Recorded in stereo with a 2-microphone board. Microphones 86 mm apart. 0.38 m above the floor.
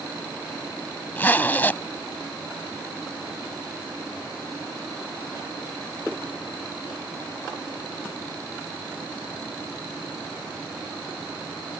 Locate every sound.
1.2 s a zipper: 20° left (ahead or behind)